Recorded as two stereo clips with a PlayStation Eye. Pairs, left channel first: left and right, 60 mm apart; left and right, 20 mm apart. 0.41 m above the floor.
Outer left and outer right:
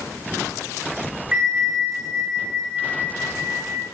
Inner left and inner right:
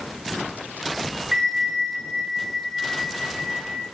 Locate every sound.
1.3 s a bell: 20° right (ahead or behind), 2 m